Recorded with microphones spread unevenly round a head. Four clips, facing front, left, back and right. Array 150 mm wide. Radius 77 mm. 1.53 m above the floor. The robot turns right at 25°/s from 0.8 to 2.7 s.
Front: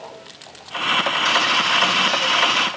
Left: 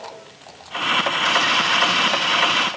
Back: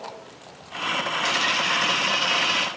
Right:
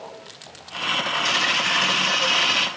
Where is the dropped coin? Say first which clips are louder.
Left 5 dB, front 5 dB; 145° right, 2.0 m; by 2.7 s 105° right, 2.0 m.